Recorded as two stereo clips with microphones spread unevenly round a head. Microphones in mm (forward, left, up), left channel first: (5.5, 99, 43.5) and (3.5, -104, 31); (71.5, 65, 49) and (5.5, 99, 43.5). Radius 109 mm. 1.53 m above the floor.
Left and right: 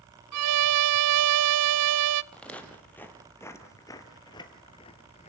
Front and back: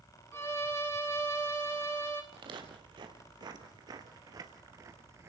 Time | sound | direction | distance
0.3 | a violin | 105° right | 0.7 m
2.3 | footsteps | 170° left | 2.5 m